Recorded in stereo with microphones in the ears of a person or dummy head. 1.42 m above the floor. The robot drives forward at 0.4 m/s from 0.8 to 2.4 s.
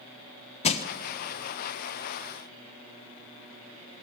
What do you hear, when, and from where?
0.6 s crushing: 35° left (ahead or behind), 0.5 m